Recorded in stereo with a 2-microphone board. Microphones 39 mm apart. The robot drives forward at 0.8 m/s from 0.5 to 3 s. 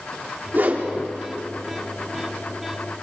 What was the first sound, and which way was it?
A whoosh, 55° right (ahead or behind).